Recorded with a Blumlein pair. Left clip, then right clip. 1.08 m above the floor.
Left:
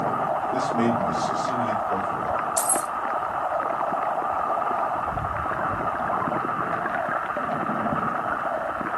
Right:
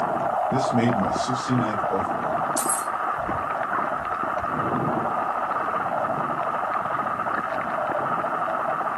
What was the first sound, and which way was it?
A man speaking, 40° right.